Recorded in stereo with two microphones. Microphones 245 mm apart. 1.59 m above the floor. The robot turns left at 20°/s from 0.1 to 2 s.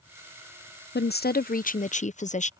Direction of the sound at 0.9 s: 45° left (ahead or behind).